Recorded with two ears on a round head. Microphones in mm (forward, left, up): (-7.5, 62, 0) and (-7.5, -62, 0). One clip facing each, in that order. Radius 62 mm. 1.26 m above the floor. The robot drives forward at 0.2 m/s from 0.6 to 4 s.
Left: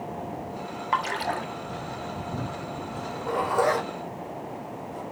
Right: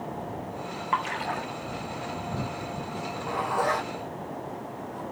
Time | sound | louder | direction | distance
0.9 | a splash | left 2 dB | 45° left (ahead or behind) | 1.0 m
2.9 | a zipper | left 4 dB | 25° left (ahead or behind) | 4 m